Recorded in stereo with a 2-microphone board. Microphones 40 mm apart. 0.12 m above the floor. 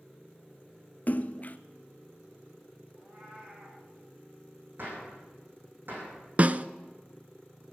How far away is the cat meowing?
About 8 m.